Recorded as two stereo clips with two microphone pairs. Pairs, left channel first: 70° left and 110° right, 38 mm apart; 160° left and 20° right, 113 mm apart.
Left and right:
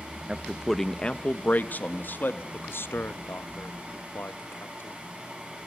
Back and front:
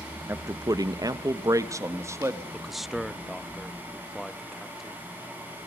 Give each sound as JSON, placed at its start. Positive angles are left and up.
{"t": 0.3, "sound": "a man speaking", "azimuth_deg": -70, "distance_m": 0.7}
{"t": 2.5, "sound": "a man speaking", "azimuth_deg": 70, "distance_m": 0.7}